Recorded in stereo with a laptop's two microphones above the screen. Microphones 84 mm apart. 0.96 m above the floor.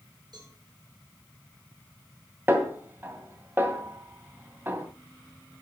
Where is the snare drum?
25° right (ahead or behind), 2.5 m.